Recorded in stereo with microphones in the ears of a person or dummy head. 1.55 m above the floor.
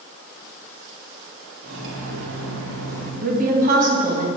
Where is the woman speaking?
45° right (ahead or behind), 2.5 m.